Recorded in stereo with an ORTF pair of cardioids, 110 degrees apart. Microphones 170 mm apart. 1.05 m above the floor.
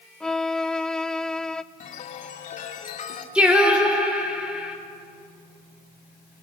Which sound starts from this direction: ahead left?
A chime, at 1.8 s.